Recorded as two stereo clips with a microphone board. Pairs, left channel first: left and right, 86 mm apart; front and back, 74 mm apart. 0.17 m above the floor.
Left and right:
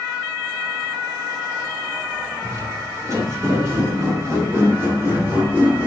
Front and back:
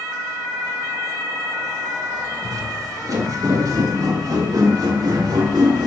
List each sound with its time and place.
2.4 s footsteps: 145° right, 7 m; by 5.9 s 160° right, 5 m